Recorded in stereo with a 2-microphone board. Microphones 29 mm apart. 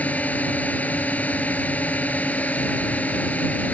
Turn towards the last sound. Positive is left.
turn(degrees=60)  # may be behind; listen again after turning